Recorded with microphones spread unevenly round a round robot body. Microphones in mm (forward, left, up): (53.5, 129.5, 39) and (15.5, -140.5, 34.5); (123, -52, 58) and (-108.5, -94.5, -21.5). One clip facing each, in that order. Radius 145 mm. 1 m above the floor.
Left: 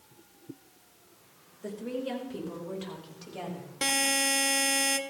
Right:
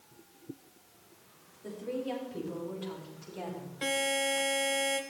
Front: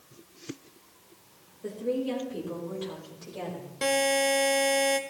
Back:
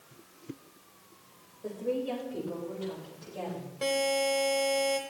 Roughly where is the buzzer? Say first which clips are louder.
Even, front 3 dB; ahead left.